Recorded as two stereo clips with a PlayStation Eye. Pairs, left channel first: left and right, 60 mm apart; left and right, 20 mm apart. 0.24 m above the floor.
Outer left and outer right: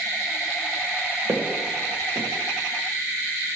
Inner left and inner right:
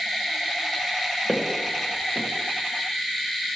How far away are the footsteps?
About 1.0 m.